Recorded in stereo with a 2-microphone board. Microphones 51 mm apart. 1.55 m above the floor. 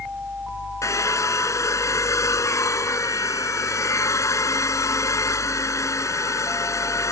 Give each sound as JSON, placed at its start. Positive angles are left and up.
{"t": 0.8, "sound": "a hair dryer", "side_deg": 90}